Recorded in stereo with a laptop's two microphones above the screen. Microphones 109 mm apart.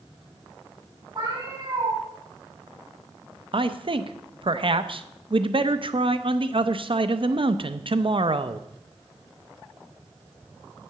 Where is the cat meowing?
40° right (ahead or behind), 4.5 m.